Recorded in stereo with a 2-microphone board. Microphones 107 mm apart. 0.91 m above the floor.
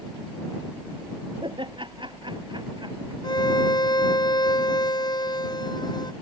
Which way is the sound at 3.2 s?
40° left (ahead or behind).